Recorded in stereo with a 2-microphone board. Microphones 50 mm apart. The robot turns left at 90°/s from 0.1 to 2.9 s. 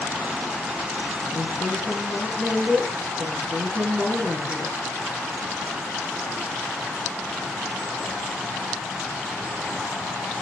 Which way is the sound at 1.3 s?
100° left.